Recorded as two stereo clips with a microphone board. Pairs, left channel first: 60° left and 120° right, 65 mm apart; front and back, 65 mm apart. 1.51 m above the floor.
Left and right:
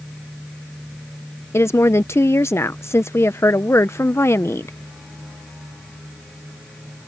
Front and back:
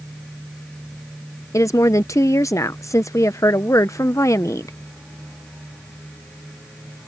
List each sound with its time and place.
1.5 s a woman speaking: 25° left